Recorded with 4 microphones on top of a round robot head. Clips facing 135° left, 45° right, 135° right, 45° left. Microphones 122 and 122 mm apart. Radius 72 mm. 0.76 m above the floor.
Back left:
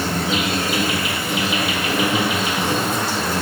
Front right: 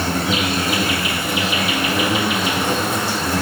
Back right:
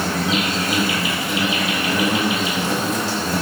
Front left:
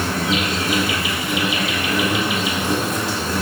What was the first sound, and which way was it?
An insect, 75° right.